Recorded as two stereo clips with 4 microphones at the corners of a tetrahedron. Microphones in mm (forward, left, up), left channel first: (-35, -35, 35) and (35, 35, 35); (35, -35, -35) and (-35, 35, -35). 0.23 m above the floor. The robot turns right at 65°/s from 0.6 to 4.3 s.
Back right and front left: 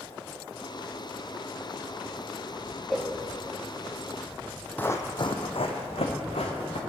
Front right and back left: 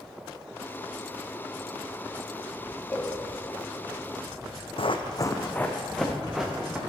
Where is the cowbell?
45° right, 0.7 m; by 3.1 s 30° right, 0.7 m.